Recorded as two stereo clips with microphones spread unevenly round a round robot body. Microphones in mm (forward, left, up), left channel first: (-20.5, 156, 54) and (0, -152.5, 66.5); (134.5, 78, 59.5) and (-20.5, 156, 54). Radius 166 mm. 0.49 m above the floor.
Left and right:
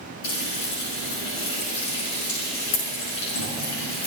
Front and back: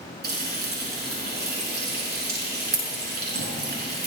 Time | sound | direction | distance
0.2 | frying | 130° left | 6.5 m